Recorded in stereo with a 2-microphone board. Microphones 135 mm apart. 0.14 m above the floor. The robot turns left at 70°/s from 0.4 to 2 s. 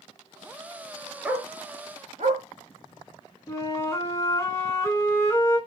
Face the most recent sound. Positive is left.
turn(degrees=20)  # may be behind; listen again after turning